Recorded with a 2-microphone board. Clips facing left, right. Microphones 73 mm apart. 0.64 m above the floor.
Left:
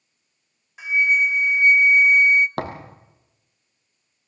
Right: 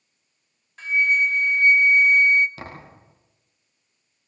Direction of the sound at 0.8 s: 10° left (ahead or behind).